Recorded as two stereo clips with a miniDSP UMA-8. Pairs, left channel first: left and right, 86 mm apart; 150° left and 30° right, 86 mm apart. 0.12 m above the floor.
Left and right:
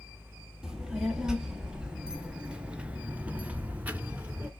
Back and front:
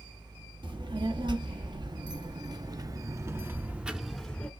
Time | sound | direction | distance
0.6 | a child speaking | 5° right | 1.8 m